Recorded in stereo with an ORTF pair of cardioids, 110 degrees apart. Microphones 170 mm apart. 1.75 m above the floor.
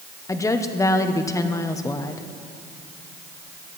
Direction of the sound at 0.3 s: 20° left.